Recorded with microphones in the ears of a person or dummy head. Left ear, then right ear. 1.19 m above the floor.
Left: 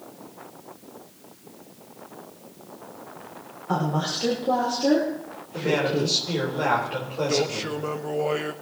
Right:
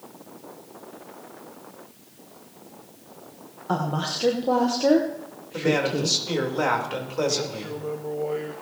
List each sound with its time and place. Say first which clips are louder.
3.7 s a woman speaking: left 1 dB; 25° right (ahead or behind), 1.5 m; by 6.2 s 60° right (ahead or behind), 1.1 m
5.5 s a man speaking: even; 90° right, 4 m
7.3 s a man speaking: left 4 dB; 65° left (ahead or behind), 0.9 m